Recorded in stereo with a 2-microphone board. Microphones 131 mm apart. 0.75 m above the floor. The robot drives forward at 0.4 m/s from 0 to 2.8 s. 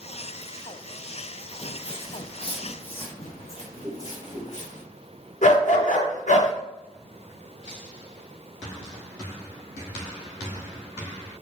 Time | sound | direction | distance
1.5 | footsteps | 35° left (ahead or behind) | 0.9 m
3.8 | a whoosh | 50° right (ahead or behind) | 3.5 m
5.4 | a dog barking | 70° left (ahead or behind) | 3 m